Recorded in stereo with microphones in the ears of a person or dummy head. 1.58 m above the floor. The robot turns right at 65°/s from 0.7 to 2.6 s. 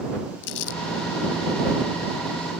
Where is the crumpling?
70° left (ahead or behind); by 0.8 s 75° left (ahead or behind).